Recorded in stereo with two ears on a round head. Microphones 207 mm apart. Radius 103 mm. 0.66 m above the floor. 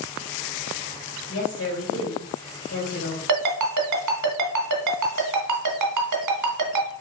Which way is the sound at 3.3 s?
85° right.